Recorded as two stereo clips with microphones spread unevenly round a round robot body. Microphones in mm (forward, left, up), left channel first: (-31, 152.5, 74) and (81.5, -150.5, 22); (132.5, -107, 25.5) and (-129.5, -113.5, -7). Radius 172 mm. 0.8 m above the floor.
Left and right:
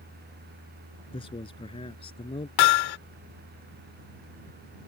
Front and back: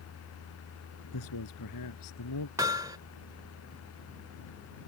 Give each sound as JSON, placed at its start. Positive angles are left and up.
{"t": 1.1, "sound": "a man speaking", "azimuth_deg": 35}
{"t": 2.6, "sound": "hammering", "azimuth_deg": 100}